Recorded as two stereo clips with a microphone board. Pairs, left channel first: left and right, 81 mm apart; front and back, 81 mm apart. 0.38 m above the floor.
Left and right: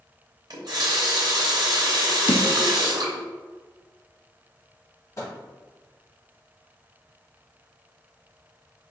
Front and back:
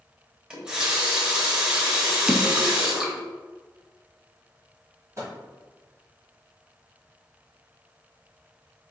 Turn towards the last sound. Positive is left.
turn(degrees=135)